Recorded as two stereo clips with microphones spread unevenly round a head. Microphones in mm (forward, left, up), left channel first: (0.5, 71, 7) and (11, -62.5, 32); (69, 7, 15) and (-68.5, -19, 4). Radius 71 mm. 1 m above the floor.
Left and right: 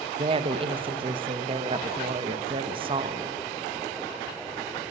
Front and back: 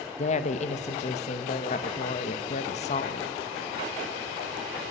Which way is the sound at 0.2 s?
30° right.